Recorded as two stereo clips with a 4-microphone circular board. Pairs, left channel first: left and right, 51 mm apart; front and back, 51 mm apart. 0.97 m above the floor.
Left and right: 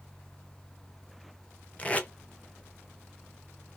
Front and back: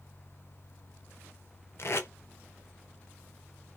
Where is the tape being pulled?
25° left, 0.5 m.